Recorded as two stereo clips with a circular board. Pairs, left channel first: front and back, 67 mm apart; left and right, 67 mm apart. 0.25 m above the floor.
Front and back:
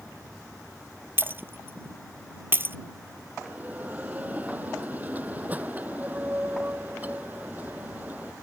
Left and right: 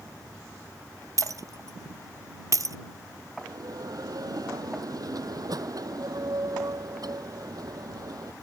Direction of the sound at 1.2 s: 125° right.